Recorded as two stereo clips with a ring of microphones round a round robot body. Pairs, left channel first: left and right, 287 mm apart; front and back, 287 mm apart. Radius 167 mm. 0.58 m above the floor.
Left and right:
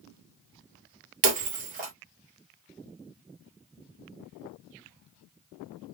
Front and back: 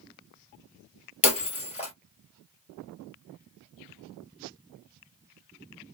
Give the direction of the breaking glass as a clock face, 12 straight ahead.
2 o'clock.